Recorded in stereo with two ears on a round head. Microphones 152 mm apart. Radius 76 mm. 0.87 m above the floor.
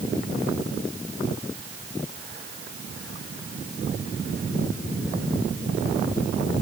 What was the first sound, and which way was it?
Only background noise.